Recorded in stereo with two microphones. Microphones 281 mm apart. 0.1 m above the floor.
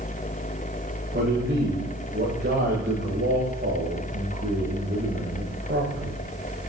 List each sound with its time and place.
1.1 s a man speaking: 40° right (ahead or behind), 8 m